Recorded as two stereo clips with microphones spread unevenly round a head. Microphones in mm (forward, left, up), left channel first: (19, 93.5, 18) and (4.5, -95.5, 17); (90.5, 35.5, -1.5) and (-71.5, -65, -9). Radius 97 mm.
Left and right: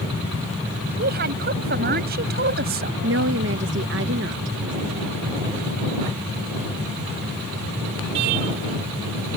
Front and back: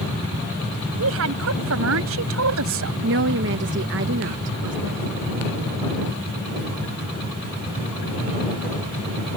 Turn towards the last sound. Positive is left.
turn(degrees=-125)